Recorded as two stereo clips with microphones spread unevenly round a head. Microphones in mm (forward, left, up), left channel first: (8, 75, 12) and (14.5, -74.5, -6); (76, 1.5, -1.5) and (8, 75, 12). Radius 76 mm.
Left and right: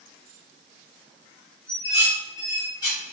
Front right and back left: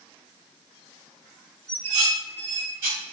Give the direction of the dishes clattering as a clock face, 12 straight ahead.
7 o'clock.